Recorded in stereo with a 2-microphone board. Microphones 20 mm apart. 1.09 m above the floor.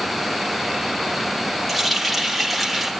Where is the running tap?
10° left (ahead or behind), 2 m.